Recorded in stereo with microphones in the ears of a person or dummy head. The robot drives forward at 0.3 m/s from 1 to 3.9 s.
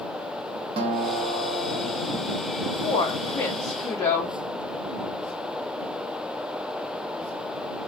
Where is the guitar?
30° right (ahead or behind), 0.9 m; by 2.1 s 45° right (ahead or behind), 0.6 m.